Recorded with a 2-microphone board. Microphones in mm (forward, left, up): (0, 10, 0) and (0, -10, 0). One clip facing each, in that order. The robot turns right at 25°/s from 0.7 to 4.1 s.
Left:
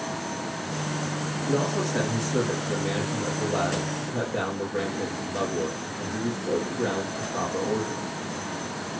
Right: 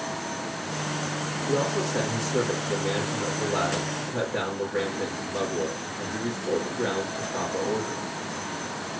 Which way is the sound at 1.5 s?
145° left.